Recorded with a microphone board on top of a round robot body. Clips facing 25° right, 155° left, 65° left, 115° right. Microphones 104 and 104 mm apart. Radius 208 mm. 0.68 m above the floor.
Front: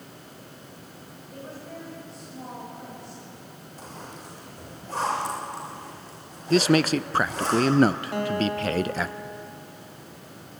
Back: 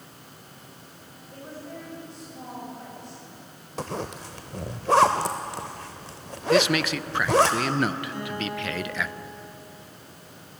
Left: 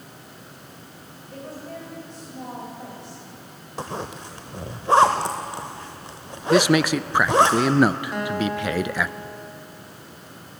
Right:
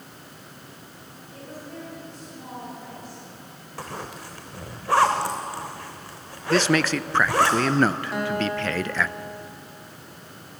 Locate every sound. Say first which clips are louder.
1.3 s a woman speaking: even, left 3 dB; 70° left, 6 m
3.8 s a zipper: back 10 dB, left 4 dB; 135° left, 0.6 m
6.5 s a man speaking: front 2 dB, left 3 dB; 5° right, 0.7 m
8.1 s a guitar: front 6 dB, left 1 dB; 25° right, 3 m